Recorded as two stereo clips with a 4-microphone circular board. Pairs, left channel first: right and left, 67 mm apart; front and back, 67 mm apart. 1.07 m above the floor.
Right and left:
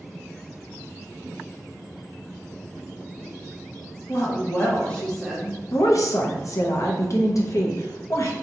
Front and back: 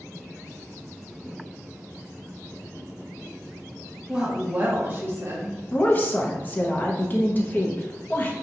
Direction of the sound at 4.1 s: 110° right.